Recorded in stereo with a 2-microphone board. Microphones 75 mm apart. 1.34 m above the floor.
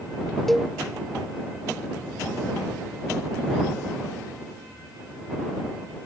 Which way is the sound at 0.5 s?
5° left (ahead or behind).